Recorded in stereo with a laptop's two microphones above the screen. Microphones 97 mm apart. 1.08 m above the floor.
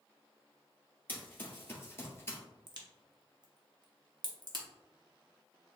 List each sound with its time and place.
1.1 s running footsteps: 20° left (ahead or behind), 1.7 m; by 2.4 s 30° left (ahead or behind), 1.3 m
2.7 s a crack: 50° right (ahead or behind), 0.8 m